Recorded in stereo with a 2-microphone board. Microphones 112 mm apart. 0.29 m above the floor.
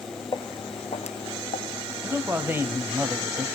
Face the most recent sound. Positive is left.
turn(degrees=-20)  # may be behind; listen again after turning